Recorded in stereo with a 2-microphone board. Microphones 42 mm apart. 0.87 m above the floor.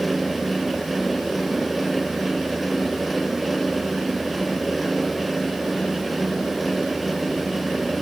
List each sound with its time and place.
Only background noise.